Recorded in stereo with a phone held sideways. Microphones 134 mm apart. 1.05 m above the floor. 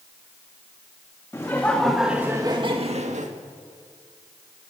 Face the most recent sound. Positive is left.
turn(degrees=-65)  # may be behind; listen again after turning